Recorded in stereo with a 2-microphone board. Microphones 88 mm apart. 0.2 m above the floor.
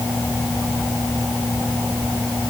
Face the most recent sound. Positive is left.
No sound to turn to.